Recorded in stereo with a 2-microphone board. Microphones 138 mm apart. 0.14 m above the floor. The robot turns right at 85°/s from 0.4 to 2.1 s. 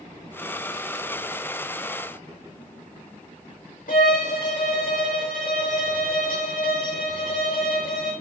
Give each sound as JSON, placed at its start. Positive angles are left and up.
{"t": 3.9, "sound": "a violin", "side_deg": 75, "distance_m": 3.0}